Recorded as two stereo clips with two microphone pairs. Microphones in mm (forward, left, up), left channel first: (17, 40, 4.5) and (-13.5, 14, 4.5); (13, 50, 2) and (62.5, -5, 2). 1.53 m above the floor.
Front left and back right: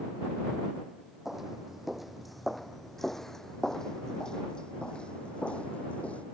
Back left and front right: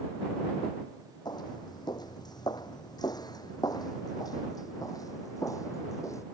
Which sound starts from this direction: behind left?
Footsteps, at 1.2 s.